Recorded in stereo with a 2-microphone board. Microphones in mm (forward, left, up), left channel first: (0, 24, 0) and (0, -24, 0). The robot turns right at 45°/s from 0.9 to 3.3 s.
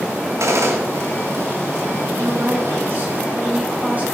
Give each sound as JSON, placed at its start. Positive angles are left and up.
{"t": 0.4, "sound": "a gunshot", "side_deg": -80, "distance_m": 2.0}
{"t": 2.2, "sound": "a woman speaking", "azimuth_deg": -85, "distance_m": 3.5}